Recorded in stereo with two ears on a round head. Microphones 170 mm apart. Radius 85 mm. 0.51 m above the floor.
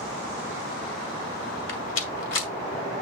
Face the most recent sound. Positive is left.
turn(degrees=70)  # may be behind; listen again after turning